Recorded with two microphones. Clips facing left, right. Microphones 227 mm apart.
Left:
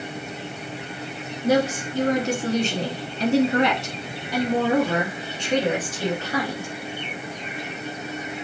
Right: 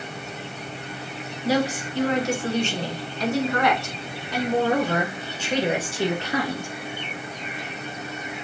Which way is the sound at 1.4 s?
50° left (ahead or behind).